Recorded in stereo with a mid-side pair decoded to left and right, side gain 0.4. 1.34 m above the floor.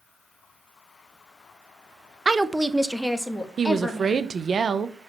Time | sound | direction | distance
2.2 | a woman speaking | 25° right | 0.7 m
3.6 | a woman speaking | 40° right | 1.0 m